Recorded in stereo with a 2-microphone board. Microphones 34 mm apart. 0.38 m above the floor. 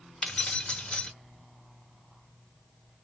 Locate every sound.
0.2 s keys jangling: 30° left (ahead or behind), 0.8 m